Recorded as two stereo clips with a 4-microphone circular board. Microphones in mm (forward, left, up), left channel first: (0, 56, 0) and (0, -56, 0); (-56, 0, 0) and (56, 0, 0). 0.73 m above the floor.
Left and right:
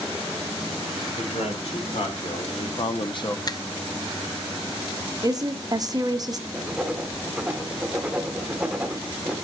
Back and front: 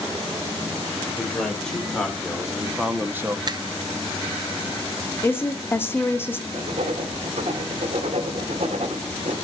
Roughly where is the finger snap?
Ahead left.